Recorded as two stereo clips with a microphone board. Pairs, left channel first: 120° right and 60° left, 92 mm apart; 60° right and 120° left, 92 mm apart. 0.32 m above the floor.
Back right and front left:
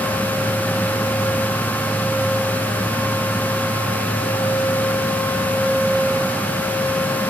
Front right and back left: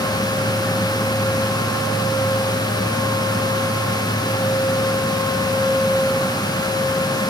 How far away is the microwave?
I don't hear a microwave.